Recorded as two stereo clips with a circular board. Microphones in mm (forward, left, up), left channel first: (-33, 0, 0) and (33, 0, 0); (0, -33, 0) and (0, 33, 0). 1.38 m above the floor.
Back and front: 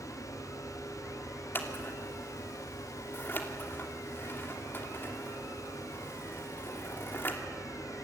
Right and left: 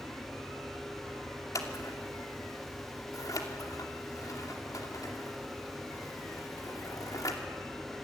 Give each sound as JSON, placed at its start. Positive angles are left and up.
{"t": 1.6, "sound": "scissors", "azimuth_deg": -125, "distance_m": 2.5}